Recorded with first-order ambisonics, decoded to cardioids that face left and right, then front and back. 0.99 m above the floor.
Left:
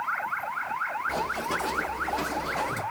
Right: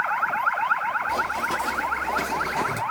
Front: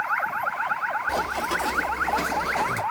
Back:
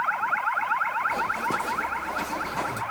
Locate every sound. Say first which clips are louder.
1.1 s running footsteps: right 4 dB, even; 15° right, 1.5 m; by 2.8 s 55° right, 1.0 m